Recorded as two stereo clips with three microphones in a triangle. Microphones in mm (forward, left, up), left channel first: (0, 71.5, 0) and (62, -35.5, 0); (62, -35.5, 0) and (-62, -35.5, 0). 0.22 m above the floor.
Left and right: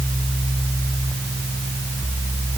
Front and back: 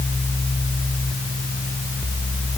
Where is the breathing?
No breathing in this recording.